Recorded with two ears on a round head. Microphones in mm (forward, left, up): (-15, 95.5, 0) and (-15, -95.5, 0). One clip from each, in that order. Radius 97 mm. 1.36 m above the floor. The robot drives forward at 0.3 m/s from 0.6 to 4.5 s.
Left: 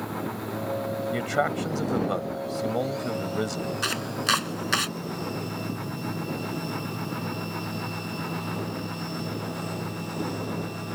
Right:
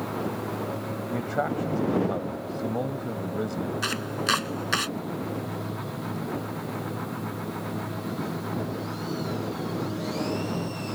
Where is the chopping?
15° left (ahead or behind).